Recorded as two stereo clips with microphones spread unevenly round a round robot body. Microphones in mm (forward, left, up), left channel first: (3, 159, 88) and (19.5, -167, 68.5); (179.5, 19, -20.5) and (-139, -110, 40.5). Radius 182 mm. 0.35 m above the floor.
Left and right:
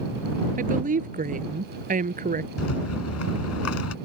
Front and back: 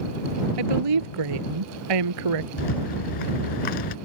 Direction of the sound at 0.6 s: 155° right.